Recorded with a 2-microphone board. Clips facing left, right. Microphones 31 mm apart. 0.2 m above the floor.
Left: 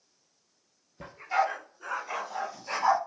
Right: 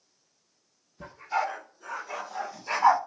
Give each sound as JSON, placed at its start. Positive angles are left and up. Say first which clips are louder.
{"t": 1.0, "sound": "a dog barking", "louder": "left 2 dB", "side_deg": 35, "distance_m": 2.0}